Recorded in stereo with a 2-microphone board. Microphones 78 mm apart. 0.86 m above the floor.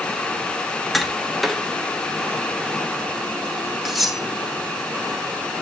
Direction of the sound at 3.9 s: Centre (ahead or behind).